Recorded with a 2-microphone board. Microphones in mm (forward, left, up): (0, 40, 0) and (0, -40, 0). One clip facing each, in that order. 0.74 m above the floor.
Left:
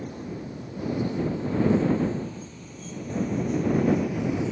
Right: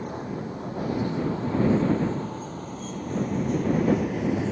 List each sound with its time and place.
0.0 s a vehicle: 55° right (ahead or behind); by 4.5 s 60° right (ahead or behind)